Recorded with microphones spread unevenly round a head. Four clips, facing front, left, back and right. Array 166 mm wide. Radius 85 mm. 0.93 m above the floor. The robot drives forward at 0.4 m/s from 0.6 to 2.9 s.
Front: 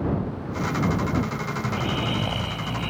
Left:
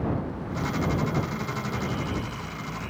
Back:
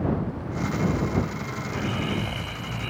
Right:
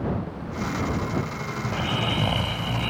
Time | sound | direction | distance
1.6 | snoring | 70° right | ?